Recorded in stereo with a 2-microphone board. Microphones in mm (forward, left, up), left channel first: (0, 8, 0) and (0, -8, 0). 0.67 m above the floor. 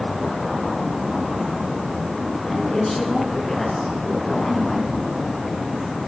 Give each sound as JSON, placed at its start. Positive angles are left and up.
{"t": 2.5, "sound": "a woman speaking", "side_deg": 25, "distance_m": 6.0}